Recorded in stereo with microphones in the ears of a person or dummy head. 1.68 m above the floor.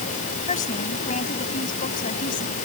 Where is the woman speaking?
40° left (ahead or behind); by 2.5 s 45° left (ahead or behind).